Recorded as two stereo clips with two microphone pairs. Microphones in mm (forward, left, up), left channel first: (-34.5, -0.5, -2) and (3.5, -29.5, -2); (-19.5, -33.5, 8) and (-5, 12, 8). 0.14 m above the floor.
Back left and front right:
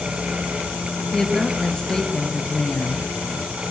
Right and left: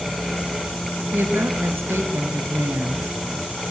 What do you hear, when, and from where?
1.1 s a woman speaking: 70° left, 3 m